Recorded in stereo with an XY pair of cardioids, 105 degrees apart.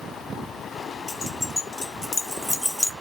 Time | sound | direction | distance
1.1 | keys jangling | 45° left | 1.5 m